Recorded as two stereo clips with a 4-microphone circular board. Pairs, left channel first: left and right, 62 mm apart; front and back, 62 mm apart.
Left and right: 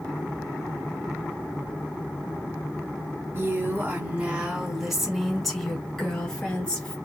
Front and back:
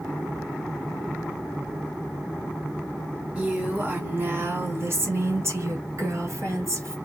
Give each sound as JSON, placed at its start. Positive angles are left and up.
{"t": 3.4, "sound": "a woman speaking", "azimuth_deg": -120, "distance_m": 1.4}